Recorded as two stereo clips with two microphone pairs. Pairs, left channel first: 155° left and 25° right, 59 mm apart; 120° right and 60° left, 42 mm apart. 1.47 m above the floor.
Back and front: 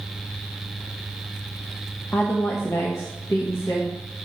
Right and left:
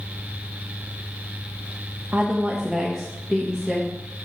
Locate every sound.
2.1 s a woman speaking: 105° left, 0.6 m; by 3.9 s 165° left, 1.4 m